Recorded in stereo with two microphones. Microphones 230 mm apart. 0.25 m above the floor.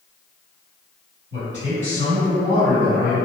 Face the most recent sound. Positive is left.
turn(degrees=-50)  # may be behind; listen again after turning